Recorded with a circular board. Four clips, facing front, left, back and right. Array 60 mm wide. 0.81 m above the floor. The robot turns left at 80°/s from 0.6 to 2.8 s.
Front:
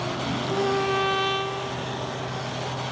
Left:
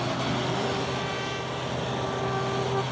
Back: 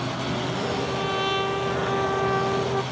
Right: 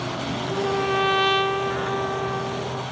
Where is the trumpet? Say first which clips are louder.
Right 5 dB, front 3 dB; 30° right; by 2.8 s 150° left.